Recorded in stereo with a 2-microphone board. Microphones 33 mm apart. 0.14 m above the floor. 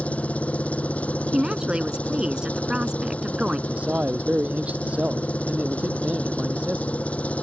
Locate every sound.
0.0 s an engine running: 45° left (ahead or behind)
1.3 s a woman speaking: 25° right (ahead or behind)
3.7 s a man speaking: 45° right (ahead or behind)